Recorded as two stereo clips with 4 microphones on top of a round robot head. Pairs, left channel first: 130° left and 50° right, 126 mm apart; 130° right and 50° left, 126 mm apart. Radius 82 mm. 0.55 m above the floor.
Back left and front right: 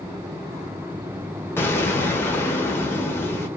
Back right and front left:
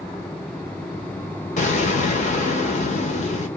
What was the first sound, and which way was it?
An explosion, 160° right.